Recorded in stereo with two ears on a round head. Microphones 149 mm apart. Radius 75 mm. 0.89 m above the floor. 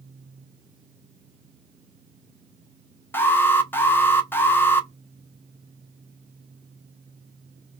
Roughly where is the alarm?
Centre.